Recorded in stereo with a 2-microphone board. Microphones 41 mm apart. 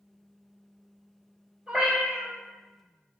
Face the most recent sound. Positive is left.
turn(degrees=-10)  # may be behind; listen again after turning